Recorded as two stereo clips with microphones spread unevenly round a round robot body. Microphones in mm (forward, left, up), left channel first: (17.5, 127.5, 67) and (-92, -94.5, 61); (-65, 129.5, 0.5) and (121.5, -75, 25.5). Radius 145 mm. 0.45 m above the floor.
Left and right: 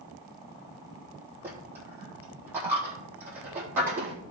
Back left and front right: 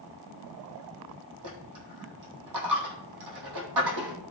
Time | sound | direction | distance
1.4 | a dropped coin | 35° right | 3 m